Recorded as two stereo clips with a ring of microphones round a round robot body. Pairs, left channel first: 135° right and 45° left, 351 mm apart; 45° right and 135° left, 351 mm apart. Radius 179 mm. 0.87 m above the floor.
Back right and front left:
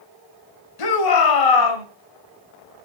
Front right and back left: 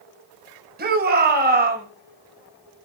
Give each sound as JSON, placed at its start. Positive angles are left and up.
{"t": 0.8, "sound": "a shout", "azimuth_deg": -160, "distance_m": 4.5}